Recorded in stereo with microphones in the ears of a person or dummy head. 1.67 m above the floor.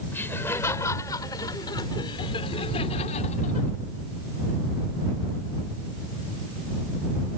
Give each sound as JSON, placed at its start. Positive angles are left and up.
{"t": 0.1, "sound": "laughter", "side_deg": 10}